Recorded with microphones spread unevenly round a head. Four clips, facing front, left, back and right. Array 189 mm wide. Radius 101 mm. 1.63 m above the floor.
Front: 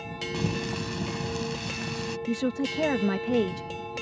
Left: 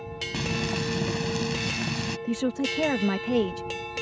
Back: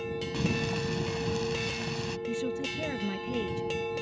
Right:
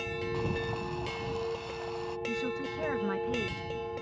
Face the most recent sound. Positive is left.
turn(degrees=45)